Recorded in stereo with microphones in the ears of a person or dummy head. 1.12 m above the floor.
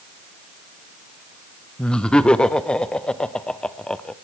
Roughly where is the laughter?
Centre.